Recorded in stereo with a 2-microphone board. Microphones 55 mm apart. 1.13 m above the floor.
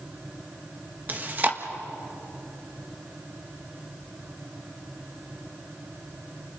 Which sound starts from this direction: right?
Chewing, at 1.1 s.